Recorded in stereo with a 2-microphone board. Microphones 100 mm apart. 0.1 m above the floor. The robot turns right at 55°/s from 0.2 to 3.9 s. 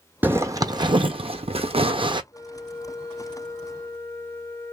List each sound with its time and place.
0.2 s a zipper: 160° right, 0.7 m; by 2.2 s 50° right, 0.7 m
2.3 s a flute: 45° right, 1.4 m; by 4.7 s 40° left, 1.4 m